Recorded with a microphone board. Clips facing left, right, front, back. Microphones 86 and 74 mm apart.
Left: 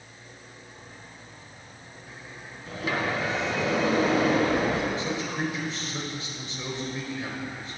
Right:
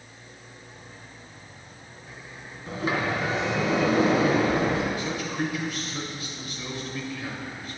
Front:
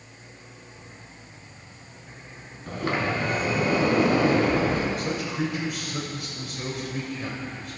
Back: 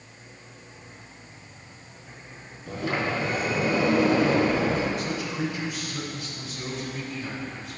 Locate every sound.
2.7 s a sliding door: 30° right, 3 m
5.0 s a man speaking: 30° left, 2.5 m